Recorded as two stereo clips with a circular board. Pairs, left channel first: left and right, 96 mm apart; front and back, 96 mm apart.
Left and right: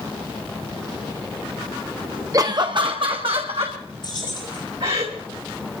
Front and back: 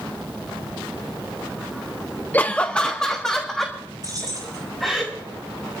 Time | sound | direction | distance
2.3 | laughter | 60° right | 0.6 m
4.0 | keys jangling | 130° left | 8 m